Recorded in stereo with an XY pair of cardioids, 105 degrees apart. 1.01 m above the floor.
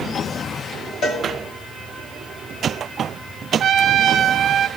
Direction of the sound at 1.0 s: 65° left.